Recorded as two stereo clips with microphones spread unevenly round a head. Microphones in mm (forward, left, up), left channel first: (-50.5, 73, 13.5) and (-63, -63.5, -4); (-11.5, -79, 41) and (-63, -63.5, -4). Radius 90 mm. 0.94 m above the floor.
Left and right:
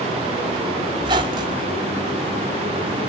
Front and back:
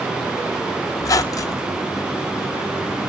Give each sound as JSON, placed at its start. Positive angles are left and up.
{"t": 1.0, "sound": "a squeak", "azimuth_deg": -30, "distance_m": 1.8}